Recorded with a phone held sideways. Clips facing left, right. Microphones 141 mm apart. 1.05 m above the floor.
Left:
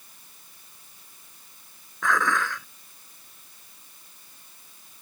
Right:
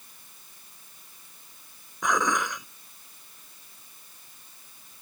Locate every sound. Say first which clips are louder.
2.0 s dishes clattering: left 1 dB; 20° right (ahead or behind)